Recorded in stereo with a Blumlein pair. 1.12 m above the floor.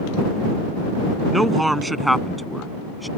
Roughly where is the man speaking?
Ahead.